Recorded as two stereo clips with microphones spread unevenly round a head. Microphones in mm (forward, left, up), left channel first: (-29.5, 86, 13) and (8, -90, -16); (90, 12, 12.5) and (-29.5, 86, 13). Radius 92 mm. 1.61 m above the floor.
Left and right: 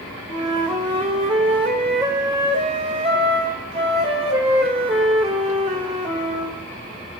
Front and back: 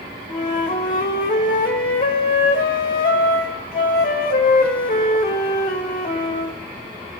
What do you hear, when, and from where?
0.3 s a flute: 15° right, 1.9 m